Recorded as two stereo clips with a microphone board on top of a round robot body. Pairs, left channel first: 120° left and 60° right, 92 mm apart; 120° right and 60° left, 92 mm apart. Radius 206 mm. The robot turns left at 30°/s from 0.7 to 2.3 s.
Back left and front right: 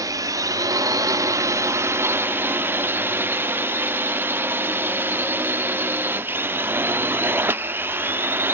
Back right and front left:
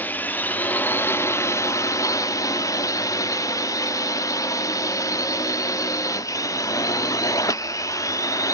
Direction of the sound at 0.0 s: 60° right.